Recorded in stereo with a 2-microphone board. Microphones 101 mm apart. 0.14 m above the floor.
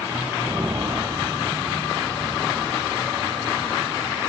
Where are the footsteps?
25° right (ahead or behind), 0.8 m; by 4.2 s 50° right (ahead or behind), 3.5 m.